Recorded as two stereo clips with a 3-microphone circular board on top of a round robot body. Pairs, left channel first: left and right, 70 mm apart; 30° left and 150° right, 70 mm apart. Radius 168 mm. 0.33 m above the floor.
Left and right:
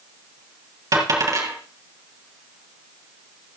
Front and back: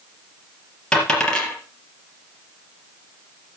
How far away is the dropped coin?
About 4 m.